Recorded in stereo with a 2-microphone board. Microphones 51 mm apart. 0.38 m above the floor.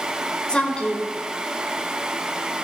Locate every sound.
0.5 s a woman speaking: 20° left (ahead or behind), 1.6 m